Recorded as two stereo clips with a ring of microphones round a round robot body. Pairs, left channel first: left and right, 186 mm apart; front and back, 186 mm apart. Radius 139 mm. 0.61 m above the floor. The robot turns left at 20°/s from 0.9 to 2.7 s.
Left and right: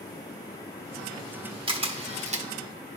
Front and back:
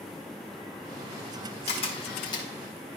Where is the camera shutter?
45° right, 1.4 m; by 2.5 s 60° right, 1.4 m.